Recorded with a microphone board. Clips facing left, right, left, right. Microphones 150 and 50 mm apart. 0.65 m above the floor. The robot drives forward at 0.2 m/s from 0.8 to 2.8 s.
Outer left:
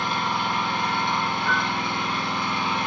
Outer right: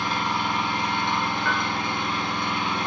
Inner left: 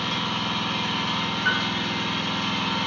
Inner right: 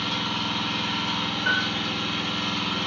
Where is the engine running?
60° left (ahead or behind), 0.9 m; by 2.9 s 85° left, 0.8 m.